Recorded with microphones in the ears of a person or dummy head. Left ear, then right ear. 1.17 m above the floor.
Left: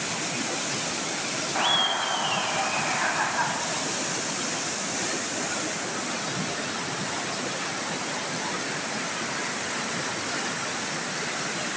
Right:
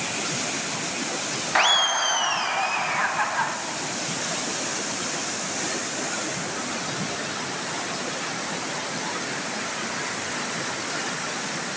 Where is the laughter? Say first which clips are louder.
Right 4 dB; 65° right (ahead or behind), 0.5 m; by 3.6 s 35° right (ahead or behind), 1.2 m.